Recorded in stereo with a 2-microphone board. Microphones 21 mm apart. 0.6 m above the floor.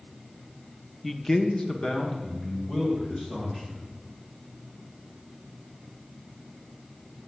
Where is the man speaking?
10° left (ahead or behind), 0.7 m; by 3.8 s 40° left (ahead or behind), 4 m.